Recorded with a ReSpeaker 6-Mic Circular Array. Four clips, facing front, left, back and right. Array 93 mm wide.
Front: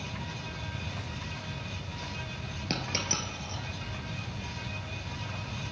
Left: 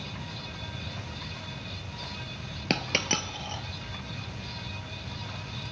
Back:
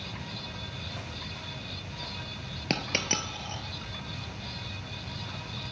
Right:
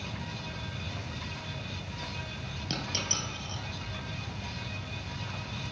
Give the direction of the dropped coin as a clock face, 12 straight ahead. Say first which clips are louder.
Left 7 dB, back 3 dB; 8 o'clock.